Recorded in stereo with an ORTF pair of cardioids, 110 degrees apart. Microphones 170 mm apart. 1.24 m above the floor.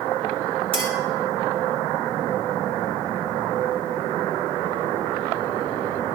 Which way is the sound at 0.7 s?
35° right.